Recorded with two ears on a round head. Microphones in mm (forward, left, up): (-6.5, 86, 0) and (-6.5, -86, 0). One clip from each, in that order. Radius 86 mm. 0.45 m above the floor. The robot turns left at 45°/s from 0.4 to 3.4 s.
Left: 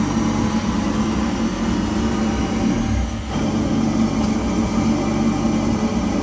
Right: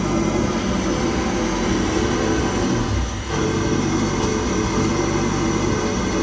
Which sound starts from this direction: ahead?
An engine running, at 0.0 s.